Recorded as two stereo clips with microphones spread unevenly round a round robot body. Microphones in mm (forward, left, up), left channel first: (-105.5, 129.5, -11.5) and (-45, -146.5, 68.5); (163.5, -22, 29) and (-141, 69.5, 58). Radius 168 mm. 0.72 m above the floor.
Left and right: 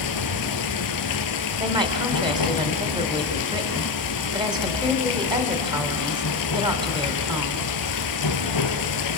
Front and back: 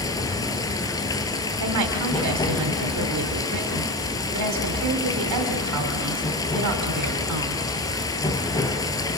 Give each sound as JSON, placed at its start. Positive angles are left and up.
{"t": 0.0, "sound": "running water", "azimuth_deg": 65, "distance_m": 1.3}
{"t": 1.6, "sound": "a woman speaking", "azimuth_deg": -155, "distance_m": 2.5}